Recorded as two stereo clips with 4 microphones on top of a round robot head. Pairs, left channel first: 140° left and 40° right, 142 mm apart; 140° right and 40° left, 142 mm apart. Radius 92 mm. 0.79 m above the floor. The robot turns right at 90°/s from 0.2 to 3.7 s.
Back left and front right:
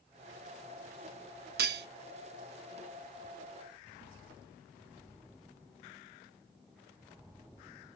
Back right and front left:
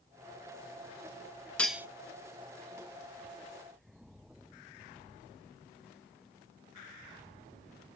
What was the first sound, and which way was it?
Cutlery clinking, 60° right.